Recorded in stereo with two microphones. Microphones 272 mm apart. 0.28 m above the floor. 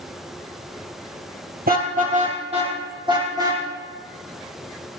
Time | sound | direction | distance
1.7 | a car horn | 35° right (ahead or behind) | 3 m